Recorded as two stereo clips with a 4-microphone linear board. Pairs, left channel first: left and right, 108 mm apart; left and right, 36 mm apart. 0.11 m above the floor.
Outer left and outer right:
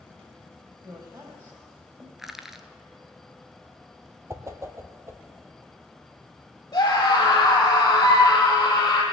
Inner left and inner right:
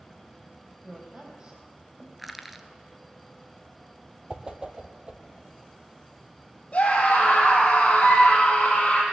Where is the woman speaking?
30° right (ahead or behind), 3.5 m.